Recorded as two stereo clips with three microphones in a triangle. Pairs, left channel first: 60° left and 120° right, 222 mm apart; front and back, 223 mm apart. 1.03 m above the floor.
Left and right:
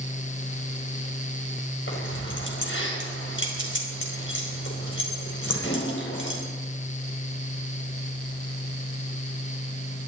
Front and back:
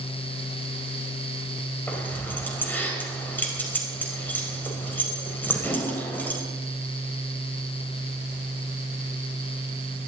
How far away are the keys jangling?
About 4.5 m.